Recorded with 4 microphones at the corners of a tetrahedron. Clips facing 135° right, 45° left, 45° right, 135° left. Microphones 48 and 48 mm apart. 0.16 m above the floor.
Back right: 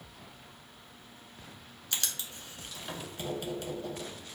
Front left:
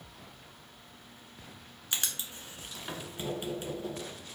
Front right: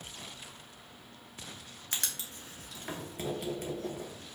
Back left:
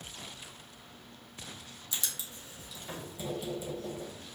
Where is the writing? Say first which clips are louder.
Front left 1 dB, front right 1 dB; 25° right, 1.0 m.